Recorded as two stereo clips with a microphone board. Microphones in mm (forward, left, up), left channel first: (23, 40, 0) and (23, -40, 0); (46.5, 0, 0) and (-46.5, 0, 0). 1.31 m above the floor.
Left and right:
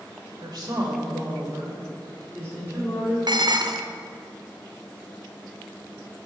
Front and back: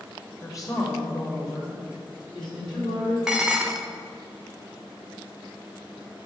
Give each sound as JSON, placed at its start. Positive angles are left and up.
{"t": 0.4, "sound": "a woman speaking", "azimuth_deg": -55, "distance_m": 1.3}
{"t": 3.3, "sound": "dishes clattering", "azimuth_deg": -100, "distance_m": 0.5}